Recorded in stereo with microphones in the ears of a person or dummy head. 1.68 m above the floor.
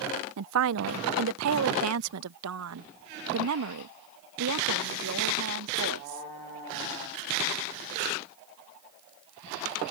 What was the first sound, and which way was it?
A woman speaking, 70° right (ahead or behind).